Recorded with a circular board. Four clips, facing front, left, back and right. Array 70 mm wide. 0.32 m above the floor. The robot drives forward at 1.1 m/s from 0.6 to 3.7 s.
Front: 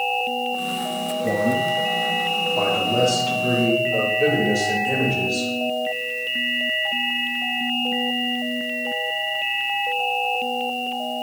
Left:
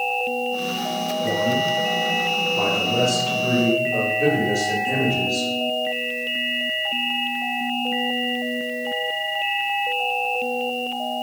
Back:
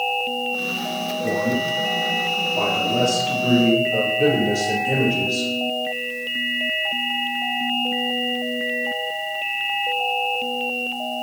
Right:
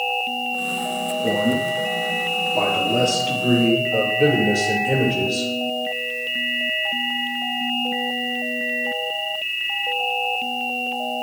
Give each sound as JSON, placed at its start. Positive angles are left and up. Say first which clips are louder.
{"t": 1.2, "sound": "a man speaking", "louder": "right 1 dB, front 2 dB", "azimuth_deg": -90, "distance_m": 7.0}